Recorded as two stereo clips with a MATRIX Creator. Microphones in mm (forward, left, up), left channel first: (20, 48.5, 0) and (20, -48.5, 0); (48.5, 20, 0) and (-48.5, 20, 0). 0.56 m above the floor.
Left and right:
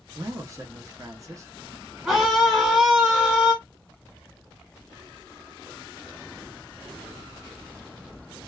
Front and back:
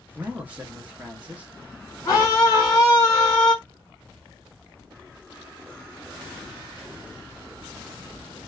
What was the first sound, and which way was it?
A man speaking, 115° right.